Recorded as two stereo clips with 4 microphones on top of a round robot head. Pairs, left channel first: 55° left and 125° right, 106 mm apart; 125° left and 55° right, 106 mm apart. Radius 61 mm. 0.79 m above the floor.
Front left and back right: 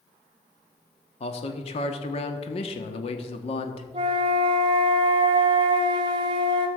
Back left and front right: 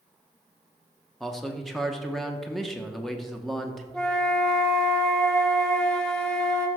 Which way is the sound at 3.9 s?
150° right.